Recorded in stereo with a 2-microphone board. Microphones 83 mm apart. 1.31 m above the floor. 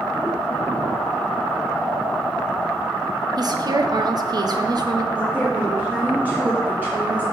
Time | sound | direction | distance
3.4 | a woman speaking | 55° right (ahead or behind) | 0.7 m
5.1 | a woman speaking | 25° right (ahead or behind) | 2.5 m